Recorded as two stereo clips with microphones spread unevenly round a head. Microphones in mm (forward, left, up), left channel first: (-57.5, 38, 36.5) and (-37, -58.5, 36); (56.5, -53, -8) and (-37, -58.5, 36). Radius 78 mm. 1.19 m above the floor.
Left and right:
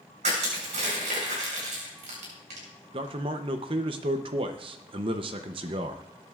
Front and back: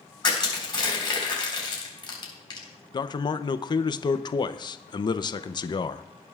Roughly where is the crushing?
Ahead right.